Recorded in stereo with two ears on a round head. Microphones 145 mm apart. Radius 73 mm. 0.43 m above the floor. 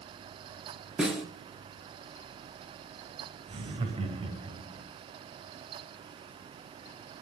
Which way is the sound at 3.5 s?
35° right (ahead or behind).